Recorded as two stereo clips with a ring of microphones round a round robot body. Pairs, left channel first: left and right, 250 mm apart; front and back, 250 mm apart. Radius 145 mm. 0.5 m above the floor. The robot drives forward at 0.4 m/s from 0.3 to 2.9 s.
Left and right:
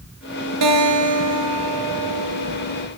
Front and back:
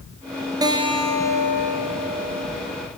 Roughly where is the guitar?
Right.